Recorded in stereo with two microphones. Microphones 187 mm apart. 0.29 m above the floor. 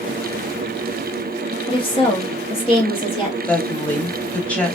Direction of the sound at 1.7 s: 25° left (ahead or behind).